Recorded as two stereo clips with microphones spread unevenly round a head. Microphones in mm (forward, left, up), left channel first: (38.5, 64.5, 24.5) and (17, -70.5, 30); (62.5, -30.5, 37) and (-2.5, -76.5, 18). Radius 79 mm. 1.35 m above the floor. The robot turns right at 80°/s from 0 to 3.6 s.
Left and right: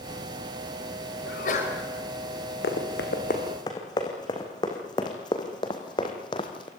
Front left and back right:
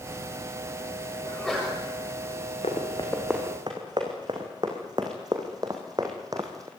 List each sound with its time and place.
1.3 s a sneeze: 105° left, 6 m; by 1.8 s 145° left, 6 m
2.6 s running footsteps: 70° left, 4.5 m; by 6.7 s 140° left, 2.5 m